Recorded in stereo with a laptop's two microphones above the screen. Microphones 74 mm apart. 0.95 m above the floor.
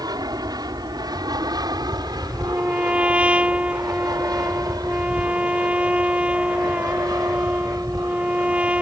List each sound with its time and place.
0.0 s an aircraft: 55° right (ahead or behind)
2.4 s a trumpet: 15° right (ahead or behind)